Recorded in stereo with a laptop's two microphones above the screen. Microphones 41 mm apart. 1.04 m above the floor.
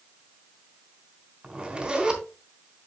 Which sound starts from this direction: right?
A zipper, at 1.4 s.